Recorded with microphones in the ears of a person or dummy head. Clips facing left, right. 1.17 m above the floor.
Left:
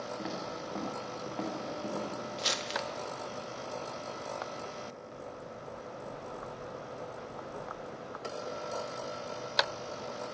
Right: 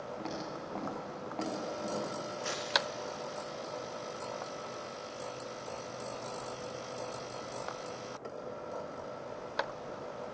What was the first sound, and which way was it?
Footsteps, 20° left (ahead or behind).